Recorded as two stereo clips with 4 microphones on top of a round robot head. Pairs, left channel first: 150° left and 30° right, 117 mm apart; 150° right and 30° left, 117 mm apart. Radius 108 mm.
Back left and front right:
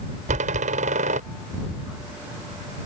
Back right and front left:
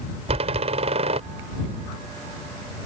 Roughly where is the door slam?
Ahead.